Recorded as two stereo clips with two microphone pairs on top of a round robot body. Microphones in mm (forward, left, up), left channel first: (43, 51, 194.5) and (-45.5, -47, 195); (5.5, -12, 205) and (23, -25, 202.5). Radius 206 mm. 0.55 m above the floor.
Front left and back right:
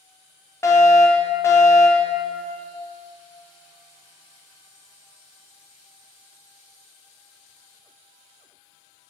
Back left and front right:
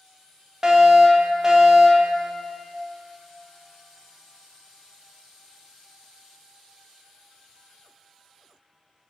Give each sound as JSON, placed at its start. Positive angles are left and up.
{"t": 0.6, "sound": "a fire alarm", "azimuth_deg": -5, "distance_m": 2.0}